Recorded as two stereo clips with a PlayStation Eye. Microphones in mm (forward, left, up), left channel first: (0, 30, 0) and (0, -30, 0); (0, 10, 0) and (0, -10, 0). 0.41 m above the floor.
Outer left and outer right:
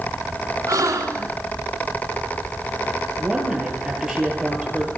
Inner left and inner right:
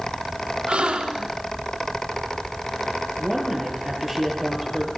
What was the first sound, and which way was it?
A gasp, 60° right (ahead or behind).